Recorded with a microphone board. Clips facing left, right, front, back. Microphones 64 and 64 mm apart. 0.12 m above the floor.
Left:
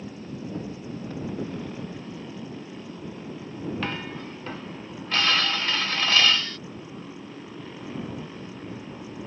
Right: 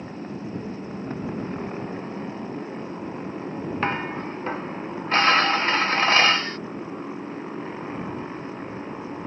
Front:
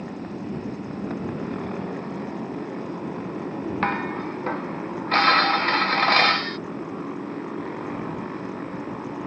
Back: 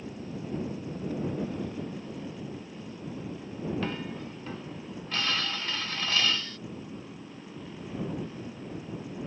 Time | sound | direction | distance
0.0 | a motorcycle | 35° right | ?
3.8 | dishes clattering | 35° right | ?